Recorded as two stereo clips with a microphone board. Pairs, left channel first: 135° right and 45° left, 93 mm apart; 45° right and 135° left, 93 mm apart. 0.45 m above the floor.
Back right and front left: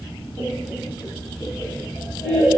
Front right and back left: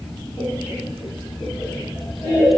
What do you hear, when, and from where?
0.4 s laughter: 90° right, 0.7 m; by 2.5 s 70° right, 1.5 m